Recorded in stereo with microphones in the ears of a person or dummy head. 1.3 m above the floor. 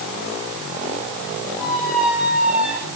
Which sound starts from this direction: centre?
A squeak, at 1.6 s.